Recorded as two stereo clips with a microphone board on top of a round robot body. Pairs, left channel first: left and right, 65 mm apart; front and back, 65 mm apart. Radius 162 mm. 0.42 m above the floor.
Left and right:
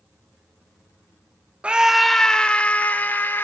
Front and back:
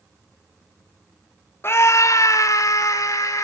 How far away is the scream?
About 0.9 m.